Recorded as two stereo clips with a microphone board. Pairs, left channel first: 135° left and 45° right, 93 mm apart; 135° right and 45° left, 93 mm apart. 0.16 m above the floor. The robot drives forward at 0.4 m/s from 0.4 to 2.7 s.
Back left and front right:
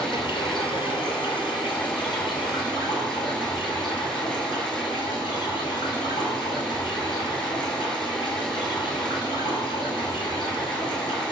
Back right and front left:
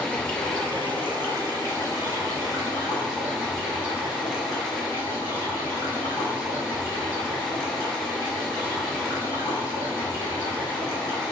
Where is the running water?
150° left, 1.0 m; by 11.3 s 165° left, 1.8 m.